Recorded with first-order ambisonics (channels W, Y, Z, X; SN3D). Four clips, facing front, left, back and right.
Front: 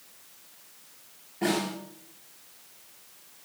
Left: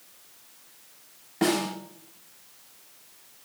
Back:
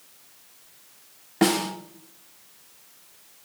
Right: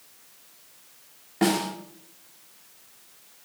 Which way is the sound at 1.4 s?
175° right.